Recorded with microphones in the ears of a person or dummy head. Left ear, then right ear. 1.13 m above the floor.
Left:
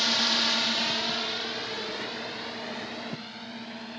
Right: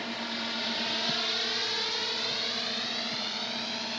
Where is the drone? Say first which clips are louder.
Left 10 dB; 45° left (ahead or behind); by 4.0 s 40° right (ahead or behind).